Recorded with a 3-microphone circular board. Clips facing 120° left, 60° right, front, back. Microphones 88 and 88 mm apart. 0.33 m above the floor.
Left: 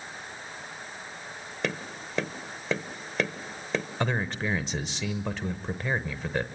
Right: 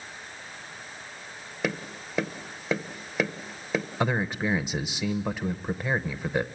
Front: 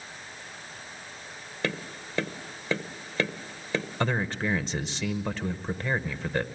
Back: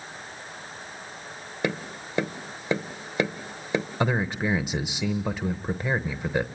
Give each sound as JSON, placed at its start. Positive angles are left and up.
{"t": 1.6, "sound": "tapping", "azimuth_deg": -140, "distance_m": 0.9}
{"t": 4.0, "sound": "a man speaking", "azimuth_deg": -125, "distance_m": 0.9}